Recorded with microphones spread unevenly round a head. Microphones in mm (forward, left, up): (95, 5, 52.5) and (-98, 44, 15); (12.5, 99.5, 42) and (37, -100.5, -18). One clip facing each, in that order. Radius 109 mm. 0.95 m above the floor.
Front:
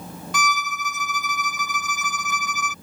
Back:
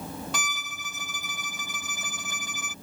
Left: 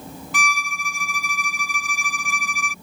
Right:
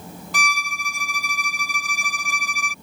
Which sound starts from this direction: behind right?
A violin, at 0.3 s.